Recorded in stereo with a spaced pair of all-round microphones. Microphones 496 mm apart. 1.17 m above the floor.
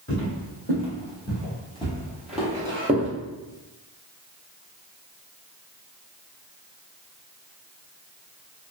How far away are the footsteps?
About 1.7 m.